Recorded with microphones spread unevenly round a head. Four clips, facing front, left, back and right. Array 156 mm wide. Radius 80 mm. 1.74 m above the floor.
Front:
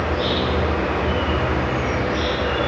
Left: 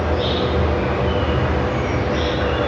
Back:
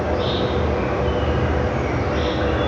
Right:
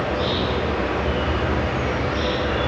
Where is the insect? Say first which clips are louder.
Left 3 dB, back 1 dB; 145° left, 8 m.